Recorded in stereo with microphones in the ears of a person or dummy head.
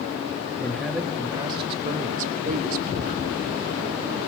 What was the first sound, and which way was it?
A man speaking, 10° left (ahead or behind).